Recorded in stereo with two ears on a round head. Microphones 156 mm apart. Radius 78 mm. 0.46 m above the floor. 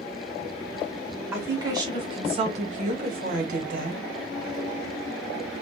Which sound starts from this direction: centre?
A woman speaking, at 1.3 s.